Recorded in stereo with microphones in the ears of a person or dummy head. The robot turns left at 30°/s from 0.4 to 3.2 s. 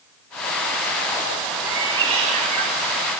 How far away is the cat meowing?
About 1.8 m.